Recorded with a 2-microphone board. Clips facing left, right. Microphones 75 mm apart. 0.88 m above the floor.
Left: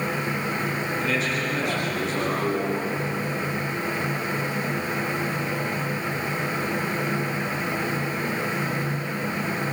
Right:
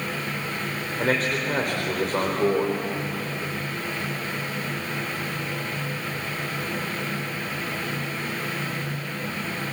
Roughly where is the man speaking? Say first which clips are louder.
Right 5 dB; right.